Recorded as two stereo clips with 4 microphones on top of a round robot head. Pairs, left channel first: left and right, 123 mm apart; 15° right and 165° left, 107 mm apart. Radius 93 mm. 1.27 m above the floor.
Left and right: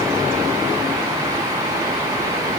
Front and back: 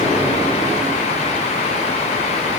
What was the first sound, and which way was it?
Only background noise.